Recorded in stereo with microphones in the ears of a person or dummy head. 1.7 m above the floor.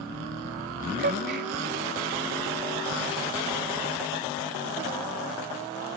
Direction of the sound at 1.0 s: 45° right (ahead or behind).